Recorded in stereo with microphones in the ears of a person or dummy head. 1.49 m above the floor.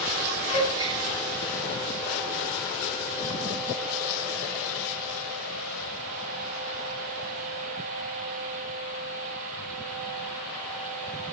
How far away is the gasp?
About 9 m.